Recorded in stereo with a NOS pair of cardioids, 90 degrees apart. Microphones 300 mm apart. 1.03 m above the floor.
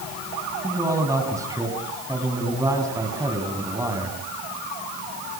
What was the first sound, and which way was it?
A man speaking, 10° right.